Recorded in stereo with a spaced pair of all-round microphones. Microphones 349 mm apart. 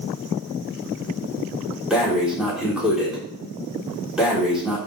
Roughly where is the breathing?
Centre.